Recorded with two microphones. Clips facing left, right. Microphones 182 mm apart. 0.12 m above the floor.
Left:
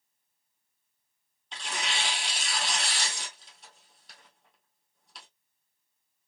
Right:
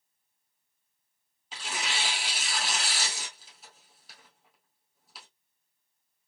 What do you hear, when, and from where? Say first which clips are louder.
1.5 s tearing paper: even; 5° right (ahead or behind), 1.9 m